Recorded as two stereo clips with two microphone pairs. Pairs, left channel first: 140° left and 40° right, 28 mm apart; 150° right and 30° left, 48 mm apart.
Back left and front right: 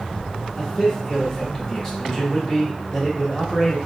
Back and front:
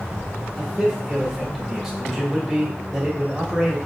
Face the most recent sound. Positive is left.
turn(degrees=115)